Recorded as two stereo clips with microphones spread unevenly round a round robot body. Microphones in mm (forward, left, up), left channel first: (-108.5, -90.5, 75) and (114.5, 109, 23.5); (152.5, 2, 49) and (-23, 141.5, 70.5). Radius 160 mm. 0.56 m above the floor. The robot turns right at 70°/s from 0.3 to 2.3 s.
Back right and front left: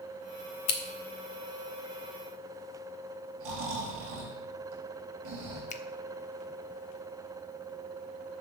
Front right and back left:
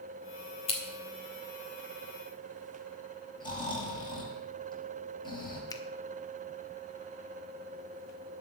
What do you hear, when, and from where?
0.7 s scissors: 100° right, 1.7 m; by 0.8 s 90° right, 1.7 m
3.4 s snoring: 30° left, 4 m
5.7 s a finger snap: 80° right, 0.9 m